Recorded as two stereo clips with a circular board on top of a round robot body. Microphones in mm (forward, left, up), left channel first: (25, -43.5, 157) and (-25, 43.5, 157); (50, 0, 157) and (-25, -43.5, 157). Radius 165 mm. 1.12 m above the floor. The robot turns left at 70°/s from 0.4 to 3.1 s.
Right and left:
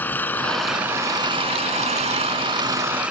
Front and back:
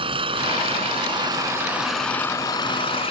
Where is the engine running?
135° right; by 3.1 s 40° left.